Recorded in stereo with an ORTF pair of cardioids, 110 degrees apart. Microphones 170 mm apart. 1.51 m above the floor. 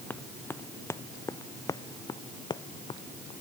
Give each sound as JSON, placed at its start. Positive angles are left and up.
{"t": 0.1, "sound": "running footsteps", "azimuth_deg": 10}